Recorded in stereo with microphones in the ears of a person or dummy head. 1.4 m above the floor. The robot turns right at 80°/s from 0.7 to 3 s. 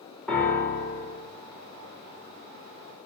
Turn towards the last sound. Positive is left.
turn(degrees=-5)